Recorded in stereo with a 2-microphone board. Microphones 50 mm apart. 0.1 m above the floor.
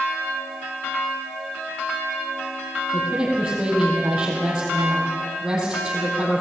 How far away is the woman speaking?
About 4 m.